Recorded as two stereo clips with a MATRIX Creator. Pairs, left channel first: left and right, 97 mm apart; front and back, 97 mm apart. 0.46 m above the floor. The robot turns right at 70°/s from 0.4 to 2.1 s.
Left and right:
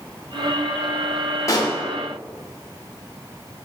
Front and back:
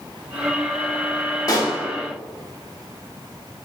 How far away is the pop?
About 0.7 m.